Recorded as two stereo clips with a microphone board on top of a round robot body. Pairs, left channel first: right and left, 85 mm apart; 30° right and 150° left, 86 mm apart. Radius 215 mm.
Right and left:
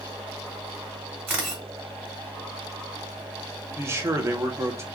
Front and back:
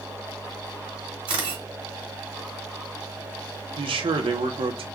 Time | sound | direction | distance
1.3 | a camera shutter | 155° left | 2 m
3.8 | a man speaking | 150° left | 0.9 m